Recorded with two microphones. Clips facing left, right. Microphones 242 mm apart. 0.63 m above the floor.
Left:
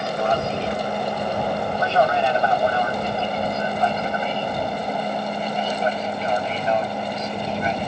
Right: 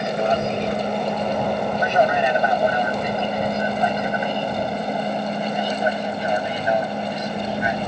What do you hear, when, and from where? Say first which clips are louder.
0.0 s an aircraft: right 2 dB; 20° right (ahead or behind); by 7.9 s 10° right (ahead or behind)